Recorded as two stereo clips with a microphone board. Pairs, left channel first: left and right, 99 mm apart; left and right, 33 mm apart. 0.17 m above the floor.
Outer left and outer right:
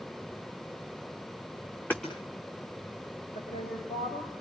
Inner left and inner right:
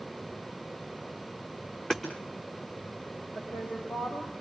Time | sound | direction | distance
1.9 | hammering | 20° left (ahead or behind) | 5.5 m
3.4 | a woman speaking | 80° left | 8 m